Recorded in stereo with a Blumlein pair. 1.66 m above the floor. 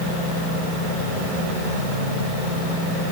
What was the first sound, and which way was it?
Only background noise.